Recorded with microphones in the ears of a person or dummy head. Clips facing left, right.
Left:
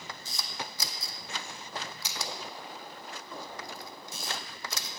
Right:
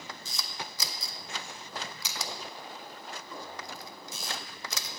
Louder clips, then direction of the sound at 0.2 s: Left 3 dB; 65° right (ahead or behind).